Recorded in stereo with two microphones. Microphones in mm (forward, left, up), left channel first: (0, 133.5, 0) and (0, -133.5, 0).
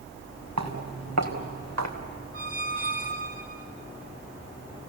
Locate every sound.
0.6 s footsteps: 85° right, 4.5 m
2.3 s a squeak: 45° right (ahead or behind), 1.6 m